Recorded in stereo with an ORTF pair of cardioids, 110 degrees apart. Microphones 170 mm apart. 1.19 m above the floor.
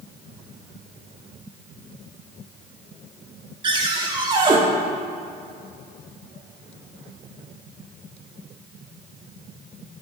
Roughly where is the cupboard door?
Ahead right.